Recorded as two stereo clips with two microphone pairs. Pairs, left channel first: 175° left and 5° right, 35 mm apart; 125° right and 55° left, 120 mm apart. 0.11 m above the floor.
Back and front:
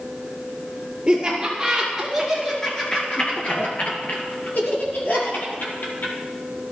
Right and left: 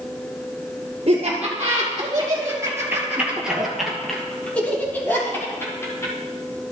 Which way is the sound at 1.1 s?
60° left.